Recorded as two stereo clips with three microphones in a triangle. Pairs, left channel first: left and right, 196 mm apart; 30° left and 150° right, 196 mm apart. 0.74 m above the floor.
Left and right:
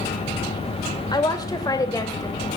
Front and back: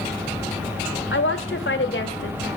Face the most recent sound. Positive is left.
turn(degrees=20)